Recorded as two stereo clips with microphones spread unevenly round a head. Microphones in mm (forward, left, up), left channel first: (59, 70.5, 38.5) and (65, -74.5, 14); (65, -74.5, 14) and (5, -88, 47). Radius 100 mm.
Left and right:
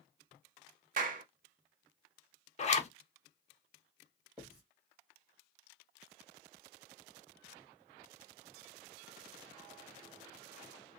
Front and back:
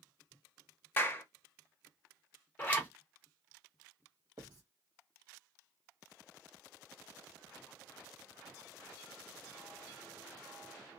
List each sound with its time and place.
1.0 s a clap: 55° right, 0.8 m
2.6 s a zipper: 50° left, 0.7 m
4.4 s writing: straight behind, 1.3 m